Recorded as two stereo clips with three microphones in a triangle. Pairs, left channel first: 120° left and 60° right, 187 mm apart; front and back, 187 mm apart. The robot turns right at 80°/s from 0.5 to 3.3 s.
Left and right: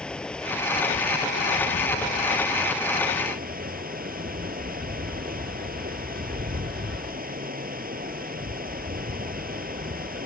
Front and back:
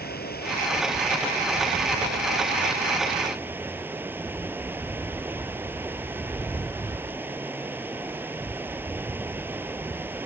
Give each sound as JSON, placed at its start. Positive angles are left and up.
{"t": 0.0, "sound": "running water", "azimuth_deg": 35}